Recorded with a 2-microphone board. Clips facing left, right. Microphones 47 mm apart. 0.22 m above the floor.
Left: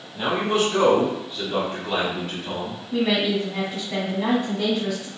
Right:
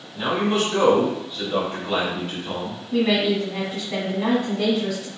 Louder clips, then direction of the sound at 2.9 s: Right 2 dB; centre (ahead or behind).